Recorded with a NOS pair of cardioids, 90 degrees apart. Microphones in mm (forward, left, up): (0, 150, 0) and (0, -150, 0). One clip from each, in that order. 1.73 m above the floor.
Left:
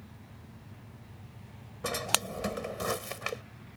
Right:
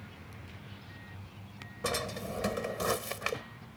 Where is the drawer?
10° right.